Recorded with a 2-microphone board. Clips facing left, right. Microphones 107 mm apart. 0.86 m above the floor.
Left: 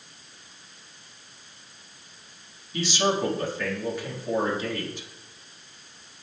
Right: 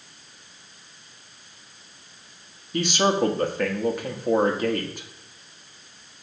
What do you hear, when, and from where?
2.7 s a man speaking: 55° right (ahead or behind), 1.3 m